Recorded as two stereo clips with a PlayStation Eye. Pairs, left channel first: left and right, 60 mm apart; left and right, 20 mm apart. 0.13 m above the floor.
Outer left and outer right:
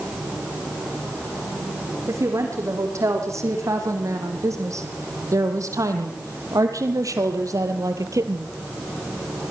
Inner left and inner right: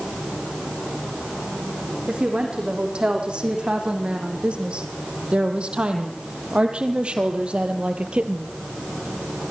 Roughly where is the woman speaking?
Right.